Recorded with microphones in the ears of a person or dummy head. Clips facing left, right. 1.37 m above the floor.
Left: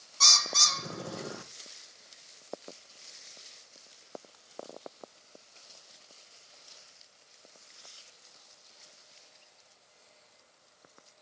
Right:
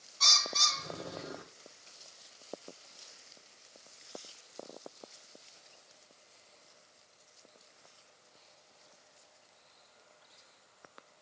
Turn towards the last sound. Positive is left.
turn(degrees=60)  # may be behind; listen again after turning